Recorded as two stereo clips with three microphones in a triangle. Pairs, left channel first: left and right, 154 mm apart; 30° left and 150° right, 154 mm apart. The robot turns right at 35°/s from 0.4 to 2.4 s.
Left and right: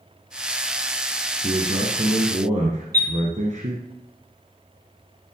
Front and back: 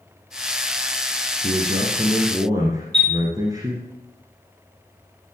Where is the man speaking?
125° right, 1.8 m; by 3.9 s 90° right, 1.8 m.